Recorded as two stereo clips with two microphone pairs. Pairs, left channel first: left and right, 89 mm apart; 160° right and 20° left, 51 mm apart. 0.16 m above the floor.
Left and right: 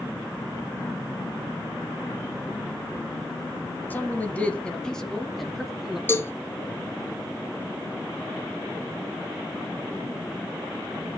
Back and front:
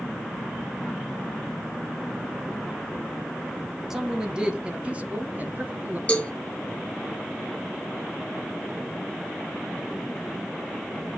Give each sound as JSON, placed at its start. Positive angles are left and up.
{"t": 3.9, "sound": "a man speaking", "azimuth_deg": 85, "distance_m": 1.1}
{"t": 6.1, "sound": "a cowbell", "azimuth_deg": 140, "distance_m": 0.9}